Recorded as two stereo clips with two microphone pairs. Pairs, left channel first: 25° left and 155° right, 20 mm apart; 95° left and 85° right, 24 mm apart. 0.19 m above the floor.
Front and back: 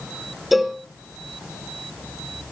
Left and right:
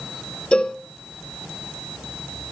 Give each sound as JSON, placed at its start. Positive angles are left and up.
{"t": 0.5, "sound": "a cowbell", "azimuth_deg": 115, "distance_m": 1.5}